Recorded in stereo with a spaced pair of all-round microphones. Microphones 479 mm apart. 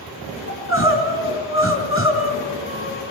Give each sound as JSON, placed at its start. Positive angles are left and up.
{"t": 0.5, "sound": "crying", "side_deg": 25, "distance_m": 4.5}